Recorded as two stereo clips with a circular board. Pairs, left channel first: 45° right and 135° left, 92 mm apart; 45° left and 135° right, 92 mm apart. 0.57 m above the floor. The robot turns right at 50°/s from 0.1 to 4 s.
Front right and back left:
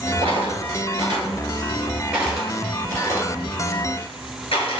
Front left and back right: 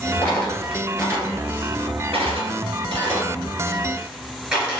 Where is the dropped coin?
115° left, 1.4 m; by 4.8 s 55° right, 1.4 m.